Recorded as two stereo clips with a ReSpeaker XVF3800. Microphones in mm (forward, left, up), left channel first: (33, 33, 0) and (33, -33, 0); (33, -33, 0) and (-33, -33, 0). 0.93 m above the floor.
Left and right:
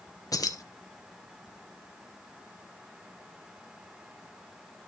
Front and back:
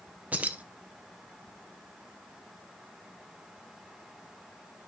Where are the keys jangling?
110° left, 0.7 m.